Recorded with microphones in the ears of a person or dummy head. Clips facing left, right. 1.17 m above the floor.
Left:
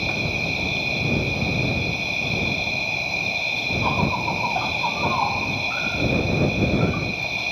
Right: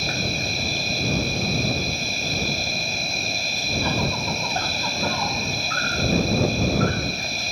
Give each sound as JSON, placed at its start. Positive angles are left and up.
{"t": 0.0, "sound": "an insect", "side_deg": -15}